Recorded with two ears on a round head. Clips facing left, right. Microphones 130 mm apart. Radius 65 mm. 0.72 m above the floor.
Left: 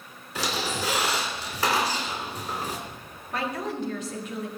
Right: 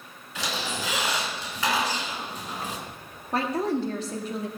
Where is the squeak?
35° left (ahead or behind), 2.5 m.